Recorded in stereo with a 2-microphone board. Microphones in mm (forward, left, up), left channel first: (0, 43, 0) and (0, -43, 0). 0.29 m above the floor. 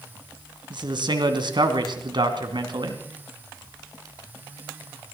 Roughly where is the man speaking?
Right.